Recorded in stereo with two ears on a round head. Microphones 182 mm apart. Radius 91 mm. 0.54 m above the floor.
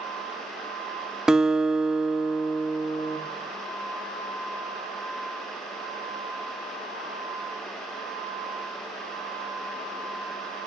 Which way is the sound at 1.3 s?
5° right (ahead or behind).